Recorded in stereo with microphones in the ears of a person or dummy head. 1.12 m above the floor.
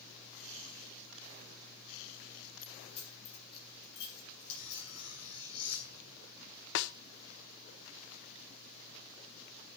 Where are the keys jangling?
50° left (ahead or behind), 7.5 m; by 5.1 s 60° left (ahead or behind), 9 m.